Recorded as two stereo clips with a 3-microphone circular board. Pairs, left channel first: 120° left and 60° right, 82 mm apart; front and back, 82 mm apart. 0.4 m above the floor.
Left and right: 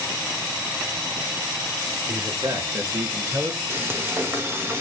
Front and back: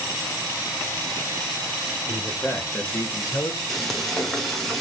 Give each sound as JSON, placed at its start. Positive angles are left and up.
{"t": 2.1, "sound": "a man speaking", "azimuth_deg": -65, "distance_m": 1.9}
{"t": 3.7, "sound": "frying", "azimuth_deg": -85, "distance_m": 0.9}